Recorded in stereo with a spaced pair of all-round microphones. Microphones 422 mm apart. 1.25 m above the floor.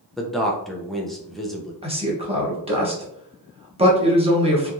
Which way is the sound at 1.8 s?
15° right (ahead or behind).